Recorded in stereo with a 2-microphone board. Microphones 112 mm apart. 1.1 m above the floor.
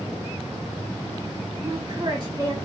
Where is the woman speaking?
35° right (ahead or behind), 1.6 m.